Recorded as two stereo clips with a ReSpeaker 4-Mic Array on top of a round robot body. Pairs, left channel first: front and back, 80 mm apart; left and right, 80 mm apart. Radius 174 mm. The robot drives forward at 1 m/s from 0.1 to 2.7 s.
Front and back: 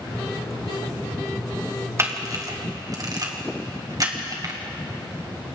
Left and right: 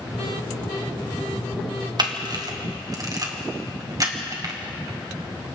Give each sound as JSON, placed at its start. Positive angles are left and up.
{"t": 2.0, "sound": "a camera shutter", "azimuth_deg": -120, "distance_m": 2.0}